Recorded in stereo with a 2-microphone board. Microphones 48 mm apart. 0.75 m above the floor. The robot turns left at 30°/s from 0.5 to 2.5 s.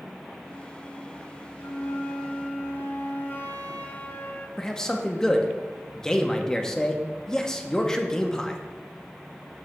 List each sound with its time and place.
1.6 s a flute: 65° left (ahead or behind), 0.8 m; by 4.5 s 40° left (ahead or behind), 0.8 m
4.6 s a man speaking: 15° left (ahead or behind), 0.7 m